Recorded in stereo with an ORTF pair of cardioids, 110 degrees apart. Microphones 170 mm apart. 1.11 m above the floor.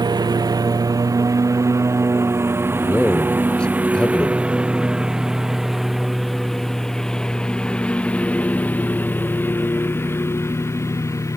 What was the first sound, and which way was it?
A lawn mower, 25° right.